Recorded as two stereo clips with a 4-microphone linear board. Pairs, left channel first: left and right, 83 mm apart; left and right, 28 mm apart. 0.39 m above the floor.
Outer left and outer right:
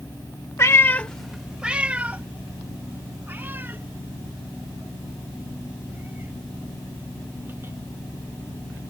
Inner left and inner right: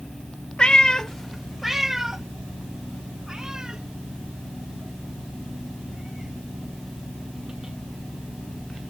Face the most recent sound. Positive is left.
turn(degrees=-25)  # may be behind; listen again after turning